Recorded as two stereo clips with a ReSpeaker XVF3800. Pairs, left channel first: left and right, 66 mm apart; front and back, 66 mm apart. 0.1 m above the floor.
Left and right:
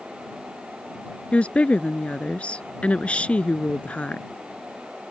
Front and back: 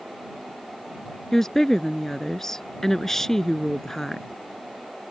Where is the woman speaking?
70° left.